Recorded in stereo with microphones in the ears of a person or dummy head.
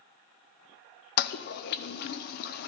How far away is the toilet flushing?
About 0.5 m.